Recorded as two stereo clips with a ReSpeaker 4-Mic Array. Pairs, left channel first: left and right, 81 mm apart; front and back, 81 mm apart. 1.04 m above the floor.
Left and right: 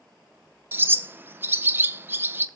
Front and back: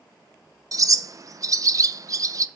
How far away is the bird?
About 0.6 m.